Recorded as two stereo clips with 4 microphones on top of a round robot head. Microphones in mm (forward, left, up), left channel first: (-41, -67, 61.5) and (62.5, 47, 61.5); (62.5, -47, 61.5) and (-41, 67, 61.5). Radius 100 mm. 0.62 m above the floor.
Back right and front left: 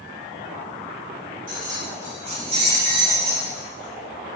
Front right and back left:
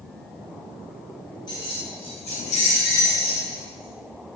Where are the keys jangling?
15° left, 1.7 m; by 4.4 s 65° right, 1.3 m.